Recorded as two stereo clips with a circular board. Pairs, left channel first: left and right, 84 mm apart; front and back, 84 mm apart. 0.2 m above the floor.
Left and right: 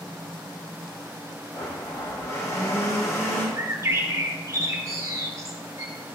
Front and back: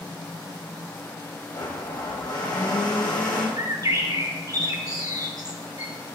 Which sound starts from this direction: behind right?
A bird, at 3.6 s.